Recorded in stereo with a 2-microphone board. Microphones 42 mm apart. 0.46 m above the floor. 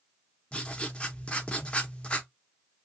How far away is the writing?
About 0.8 m.